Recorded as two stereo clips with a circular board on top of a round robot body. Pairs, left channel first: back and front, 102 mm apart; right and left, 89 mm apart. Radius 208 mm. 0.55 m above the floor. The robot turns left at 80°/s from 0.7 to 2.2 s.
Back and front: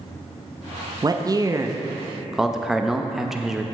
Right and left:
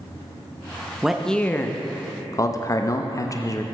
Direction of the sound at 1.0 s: 10° left.